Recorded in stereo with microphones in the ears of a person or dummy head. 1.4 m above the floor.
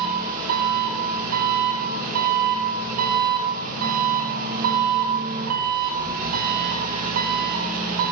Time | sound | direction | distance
0.0 | an engine running | 50° right (ahead or behind) | 1.2 m